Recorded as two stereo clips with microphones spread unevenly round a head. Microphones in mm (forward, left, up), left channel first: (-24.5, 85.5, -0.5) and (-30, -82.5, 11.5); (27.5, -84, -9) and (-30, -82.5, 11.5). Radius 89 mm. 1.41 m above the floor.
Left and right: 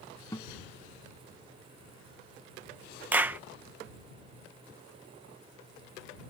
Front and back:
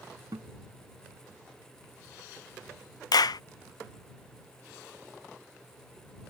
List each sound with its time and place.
0.3 s a guitar: 160° left
3.1 s a clap: 15° right